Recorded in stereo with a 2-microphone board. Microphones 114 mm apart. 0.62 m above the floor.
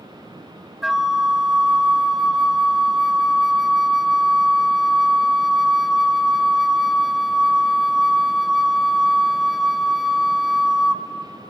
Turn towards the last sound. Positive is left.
turn(degrees=-5)  # may be behind; listen again after turning